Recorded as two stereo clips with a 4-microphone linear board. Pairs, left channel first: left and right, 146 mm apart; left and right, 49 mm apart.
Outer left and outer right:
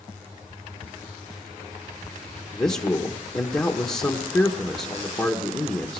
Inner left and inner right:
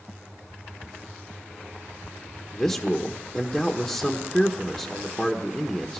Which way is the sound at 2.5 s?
25° left (ahead or behind).